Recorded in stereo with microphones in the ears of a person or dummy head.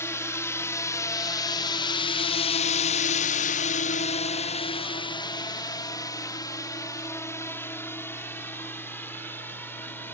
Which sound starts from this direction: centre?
A drone, at 0.0 s.